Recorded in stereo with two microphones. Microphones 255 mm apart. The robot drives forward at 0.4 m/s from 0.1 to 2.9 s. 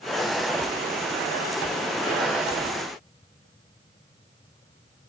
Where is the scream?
No scream in this recording.